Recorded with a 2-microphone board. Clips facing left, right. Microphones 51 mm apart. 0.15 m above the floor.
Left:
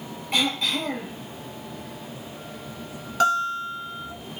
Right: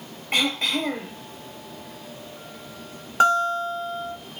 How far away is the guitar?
About 1.6 m.